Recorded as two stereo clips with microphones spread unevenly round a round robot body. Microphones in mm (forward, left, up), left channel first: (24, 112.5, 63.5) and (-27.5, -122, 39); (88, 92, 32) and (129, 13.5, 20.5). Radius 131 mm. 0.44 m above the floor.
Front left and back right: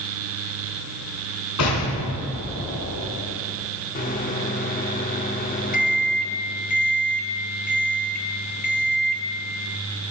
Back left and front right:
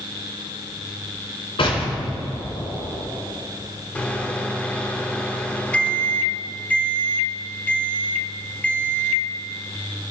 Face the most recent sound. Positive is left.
turn(degrees=40)